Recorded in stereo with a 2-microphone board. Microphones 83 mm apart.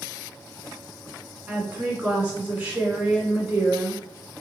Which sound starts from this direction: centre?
A woman speaking, at 1.5 s.